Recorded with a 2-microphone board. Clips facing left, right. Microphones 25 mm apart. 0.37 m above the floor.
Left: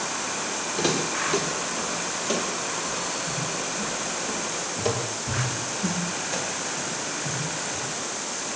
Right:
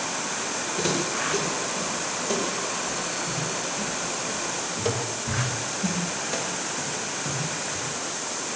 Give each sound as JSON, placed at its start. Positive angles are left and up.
{"t": 0.8, "sound": "footsteps", "side_deg": 30, "distance_m": 9.0}